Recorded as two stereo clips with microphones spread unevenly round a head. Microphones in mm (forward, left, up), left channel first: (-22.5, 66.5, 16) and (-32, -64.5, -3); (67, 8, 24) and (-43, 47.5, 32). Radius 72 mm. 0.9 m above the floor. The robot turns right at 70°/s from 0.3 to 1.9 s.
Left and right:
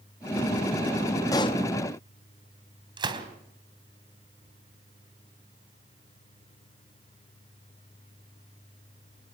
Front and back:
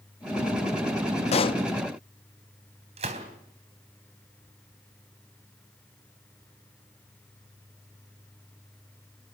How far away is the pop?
About 0.7 m.